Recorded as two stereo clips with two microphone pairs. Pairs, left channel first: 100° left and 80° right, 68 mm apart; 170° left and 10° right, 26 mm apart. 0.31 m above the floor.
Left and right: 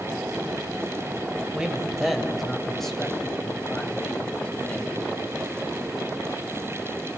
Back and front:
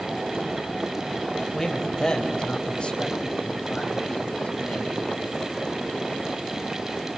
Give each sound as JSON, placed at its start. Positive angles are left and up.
{"t": 1.5, "sound": "a man speaking", "azimuth_deg": -145, "distance_m": 1.6}